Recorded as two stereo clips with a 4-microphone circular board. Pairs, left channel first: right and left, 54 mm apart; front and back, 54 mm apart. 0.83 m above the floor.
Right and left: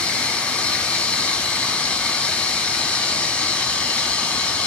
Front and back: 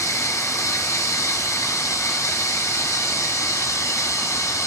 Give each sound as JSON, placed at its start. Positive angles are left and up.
{"t": 0.0, "sound": "running water", "azimuth_deg": -20, "distance_m": 2.5}